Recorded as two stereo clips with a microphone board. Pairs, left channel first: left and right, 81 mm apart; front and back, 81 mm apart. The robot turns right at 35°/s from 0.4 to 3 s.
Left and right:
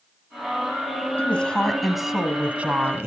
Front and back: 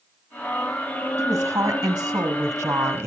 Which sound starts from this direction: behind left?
A woman speaking, at 1.2 s.